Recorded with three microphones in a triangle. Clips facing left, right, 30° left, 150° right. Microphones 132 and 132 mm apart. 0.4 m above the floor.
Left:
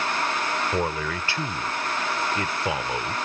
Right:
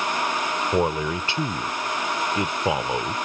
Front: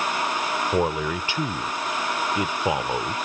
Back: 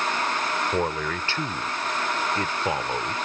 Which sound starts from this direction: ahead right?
A man speaking, at 0.7 s.